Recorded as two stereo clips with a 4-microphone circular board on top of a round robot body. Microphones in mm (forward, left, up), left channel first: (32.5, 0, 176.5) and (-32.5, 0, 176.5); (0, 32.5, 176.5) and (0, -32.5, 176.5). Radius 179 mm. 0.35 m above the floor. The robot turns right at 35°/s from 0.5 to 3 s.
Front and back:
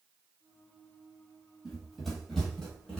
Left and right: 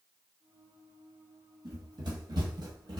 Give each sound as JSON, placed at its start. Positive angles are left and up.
{"t": 1.6, "sound": "running footsteps", "azimuth_deg": -90, "distance_m": 1.0}